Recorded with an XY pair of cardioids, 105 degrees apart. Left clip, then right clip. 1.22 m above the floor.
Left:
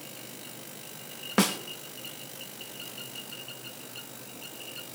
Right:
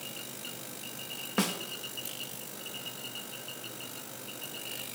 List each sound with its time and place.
1.4 s a snare drum: 40° left, 1.3 m